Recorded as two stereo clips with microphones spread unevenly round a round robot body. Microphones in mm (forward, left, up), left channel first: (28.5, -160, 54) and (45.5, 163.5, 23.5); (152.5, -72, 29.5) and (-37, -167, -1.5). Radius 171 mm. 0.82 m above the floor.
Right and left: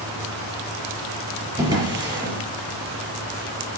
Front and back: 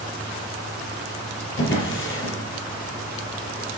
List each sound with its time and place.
1.6 s a drawer: 10° left, 4.5 m